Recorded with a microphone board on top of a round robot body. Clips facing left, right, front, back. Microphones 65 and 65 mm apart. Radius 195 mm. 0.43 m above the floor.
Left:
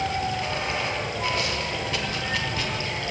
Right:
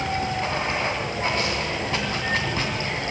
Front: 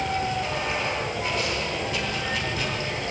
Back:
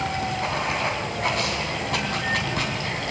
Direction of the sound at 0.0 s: 150° right.